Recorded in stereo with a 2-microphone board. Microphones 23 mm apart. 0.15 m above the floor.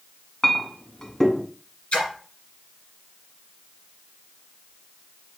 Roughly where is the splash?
Left.